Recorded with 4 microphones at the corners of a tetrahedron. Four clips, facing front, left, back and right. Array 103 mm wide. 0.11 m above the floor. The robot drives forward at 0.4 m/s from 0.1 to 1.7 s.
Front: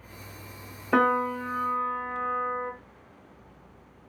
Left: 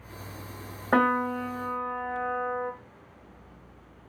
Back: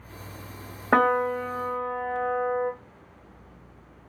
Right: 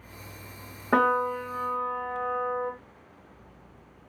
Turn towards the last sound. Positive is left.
turn(degrees=-175)